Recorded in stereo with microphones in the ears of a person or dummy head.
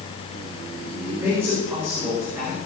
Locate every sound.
1.0 s a man speaking: 10° right (ahead or behind), 5.5 m; by 2.6 s 15° right (ahead or behind), 6.5 m